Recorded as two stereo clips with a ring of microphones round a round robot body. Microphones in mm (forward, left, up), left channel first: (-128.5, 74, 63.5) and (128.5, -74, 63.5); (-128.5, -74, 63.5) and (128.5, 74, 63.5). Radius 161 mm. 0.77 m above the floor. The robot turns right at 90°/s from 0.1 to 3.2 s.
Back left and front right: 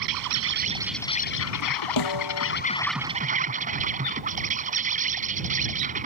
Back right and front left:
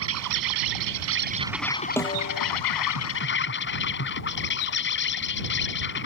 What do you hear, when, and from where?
0.0 s an insect: 15° right; by 6.1 s 95° right
2.0 s a snare drum: 125° left; by 2.5 s straight behind